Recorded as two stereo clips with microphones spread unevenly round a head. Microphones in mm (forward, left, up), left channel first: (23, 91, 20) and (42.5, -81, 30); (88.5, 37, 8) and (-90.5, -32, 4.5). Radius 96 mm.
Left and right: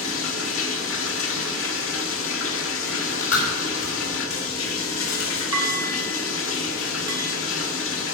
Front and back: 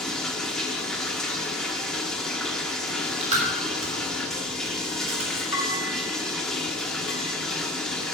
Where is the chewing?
145° left, 4 m.